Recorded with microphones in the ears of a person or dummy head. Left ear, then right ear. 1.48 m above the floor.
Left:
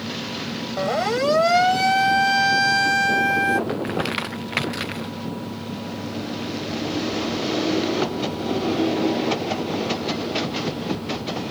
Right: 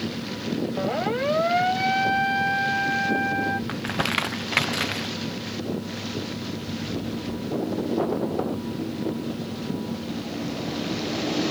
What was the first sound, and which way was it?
A siren, 75° left (ahead or behind).